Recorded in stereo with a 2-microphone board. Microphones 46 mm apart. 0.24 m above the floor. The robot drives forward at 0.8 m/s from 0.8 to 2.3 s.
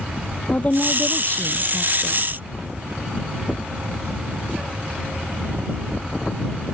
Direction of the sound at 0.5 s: 35° left (ahead or behind).